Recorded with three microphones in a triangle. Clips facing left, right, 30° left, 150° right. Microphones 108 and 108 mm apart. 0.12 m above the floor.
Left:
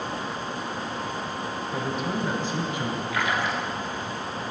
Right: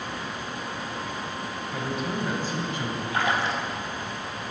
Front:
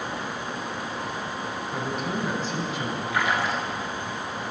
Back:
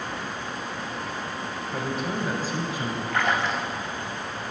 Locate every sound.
1.7 s a man speaking: 115° left, 1.7 m; by 3.0 s 160° left, 1.5 m
3.1 s a splash: 50° right, 1.3 m